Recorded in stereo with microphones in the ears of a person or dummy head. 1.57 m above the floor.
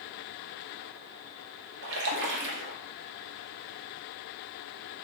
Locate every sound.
1.8 s a splash: 65° right (ahead or behind), 0.8 m